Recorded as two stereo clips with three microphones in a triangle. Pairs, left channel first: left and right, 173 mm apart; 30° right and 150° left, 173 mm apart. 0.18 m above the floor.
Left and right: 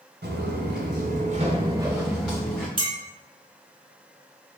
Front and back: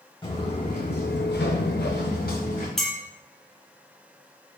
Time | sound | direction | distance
0.2 | footsteps | 95° right | 1.0 m
2.8 | a clink | 115° right | 0.7 m